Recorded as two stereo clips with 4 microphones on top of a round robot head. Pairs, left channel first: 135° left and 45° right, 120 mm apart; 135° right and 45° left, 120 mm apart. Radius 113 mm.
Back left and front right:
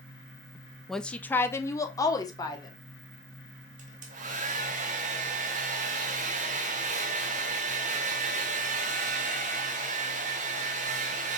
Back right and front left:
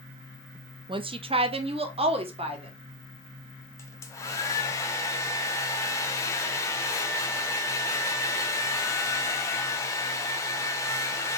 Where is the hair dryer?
70° right, 0.6 m.